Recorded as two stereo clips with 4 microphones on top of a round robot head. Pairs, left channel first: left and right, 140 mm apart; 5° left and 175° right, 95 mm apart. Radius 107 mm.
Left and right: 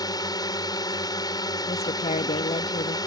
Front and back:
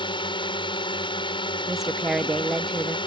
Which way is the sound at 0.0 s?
30° left.